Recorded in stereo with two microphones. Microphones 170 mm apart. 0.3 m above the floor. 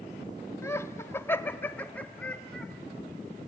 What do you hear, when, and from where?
0.6 s laughter: 15° left (ahead or behind), 0.9 m; by 2.7 s 5° left (ahead or behind), 1.2 m